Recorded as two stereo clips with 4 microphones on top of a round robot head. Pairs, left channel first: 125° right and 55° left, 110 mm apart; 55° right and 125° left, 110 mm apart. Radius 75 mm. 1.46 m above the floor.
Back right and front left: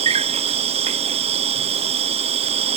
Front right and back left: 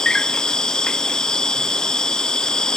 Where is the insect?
30° left.